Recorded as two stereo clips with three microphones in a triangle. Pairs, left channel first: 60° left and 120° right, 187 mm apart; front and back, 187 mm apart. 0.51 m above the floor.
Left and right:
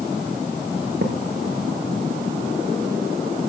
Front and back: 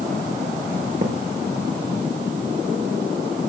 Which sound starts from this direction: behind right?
A thud, at 1.0 s.